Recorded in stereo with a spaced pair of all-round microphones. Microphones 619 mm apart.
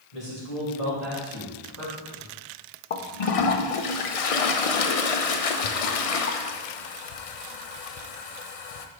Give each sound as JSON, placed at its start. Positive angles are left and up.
{"t": 0.1, "sound": "a man speaking", "side_deg": 80, "distance_m": 1.9}
{"t": 2.9, "sound": "a toilet flushing", "side_deg": 65, "distance_m": 0.6}